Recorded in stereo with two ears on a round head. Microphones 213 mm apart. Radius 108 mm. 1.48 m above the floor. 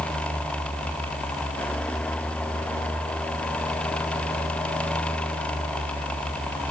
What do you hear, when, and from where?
Only background noise.